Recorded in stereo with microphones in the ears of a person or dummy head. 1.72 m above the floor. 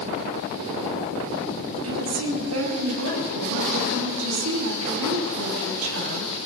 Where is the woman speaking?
85° right, 6 m.